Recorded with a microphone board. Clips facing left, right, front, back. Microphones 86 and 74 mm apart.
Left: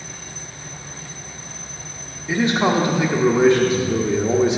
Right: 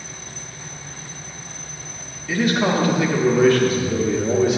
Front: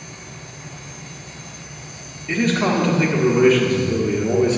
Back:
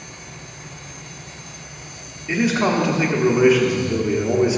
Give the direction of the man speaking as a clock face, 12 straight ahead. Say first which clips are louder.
Left 1 dB, even; 8 o'clock.